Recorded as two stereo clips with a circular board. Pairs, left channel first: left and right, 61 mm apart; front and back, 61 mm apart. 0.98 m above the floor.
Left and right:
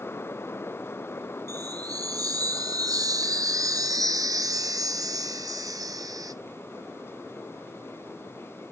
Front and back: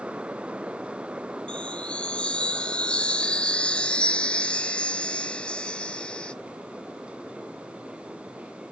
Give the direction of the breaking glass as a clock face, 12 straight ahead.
I don't hear breaking glass.